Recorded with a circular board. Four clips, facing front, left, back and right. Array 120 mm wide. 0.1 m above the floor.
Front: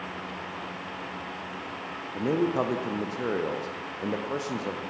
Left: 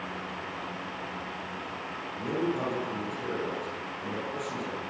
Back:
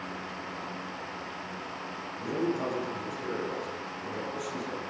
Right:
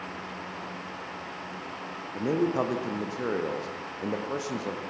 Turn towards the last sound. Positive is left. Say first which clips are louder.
# right 4 dB, front 5 dB
turn(degrees=-35)